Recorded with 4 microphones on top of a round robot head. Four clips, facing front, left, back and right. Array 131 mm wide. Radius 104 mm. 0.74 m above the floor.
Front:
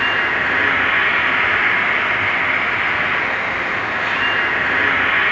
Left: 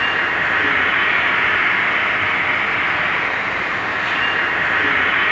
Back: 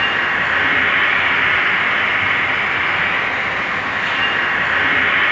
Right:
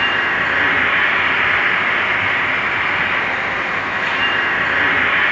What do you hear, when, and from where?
0.0 s an insect: 160° right, 1.9 m